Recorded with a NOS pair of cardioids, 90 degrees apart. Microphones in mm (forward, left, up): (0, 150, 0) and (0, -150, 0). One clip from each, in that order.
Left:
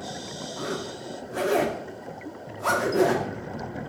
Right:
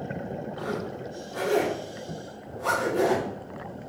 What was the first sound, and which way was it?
A zipper, 25° left.